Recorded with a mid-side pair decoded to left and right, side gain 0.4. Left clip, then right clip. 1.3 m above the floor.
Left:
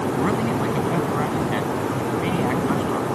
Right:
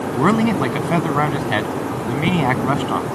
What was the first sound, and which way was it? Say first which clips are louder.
A man speaking: right 10 dB; 65° right.